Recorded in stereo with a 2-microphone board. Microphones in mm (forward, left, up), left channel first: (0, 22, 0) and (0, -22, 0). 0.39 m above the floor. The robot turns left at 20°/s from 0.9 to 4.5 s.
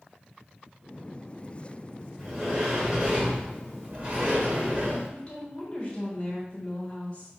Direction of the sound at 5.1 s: 35° left (ahead or behind).